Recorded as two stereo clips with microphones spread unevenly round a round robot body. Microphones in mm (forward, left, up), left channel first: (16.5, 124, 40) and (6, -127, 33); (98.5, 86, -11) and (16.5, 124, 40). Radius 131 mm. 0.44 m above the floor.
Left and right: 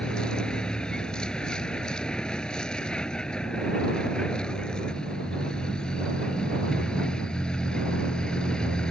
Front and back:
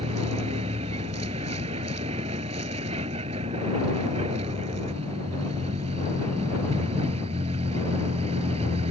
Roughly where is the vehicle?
Behind.